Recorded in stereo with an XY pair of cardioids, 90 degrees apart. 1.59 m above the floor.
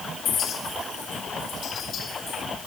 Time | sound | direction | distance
0.2 | a clink | 70° left | 4.5 m